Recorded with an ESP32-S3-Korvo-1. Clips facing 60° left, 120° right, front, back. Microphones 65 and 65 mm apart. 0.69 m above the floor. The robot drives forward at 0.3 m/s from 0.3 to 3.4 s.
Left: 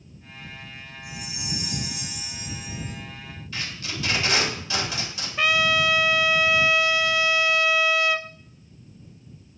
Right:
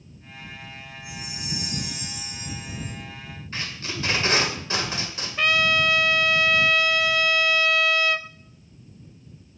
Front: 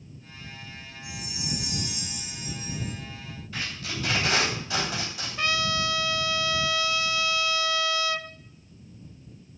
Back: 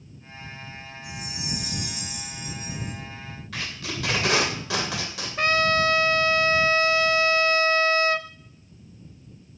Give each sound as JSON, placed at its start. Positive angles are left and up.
{"t": 1.0, "sound": "a chime", "azimuth_deg": 130, "distance_m": 5.5}
{"t": 3.5, "sound": "tape being pulled", "azimuth_deg": -175, "distance_m": 2.5}
{"t": 5.4, "sound": "a trumpet", "azimuth_deg": 145, "distance_m": 0.7}